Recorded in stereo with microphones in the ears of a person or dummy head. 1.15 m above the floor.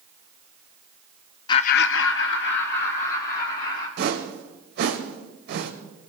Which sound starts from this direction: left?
Laughter, at 1.5 s.